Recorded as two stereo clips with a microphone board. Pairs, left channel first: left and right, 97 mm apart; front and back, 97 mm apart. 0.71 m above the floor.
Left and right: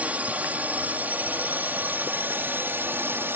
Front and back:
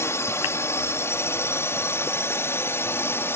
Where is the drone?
30° right; by 3.4 s 40° right.